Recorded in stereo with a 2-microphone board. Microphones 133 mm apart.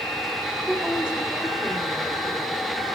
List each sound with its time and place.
0.7 s a woman speaking: 10° right (ahead or behind), 1.9 m; by 2.6 s centre (ahead or behind), 3.5 m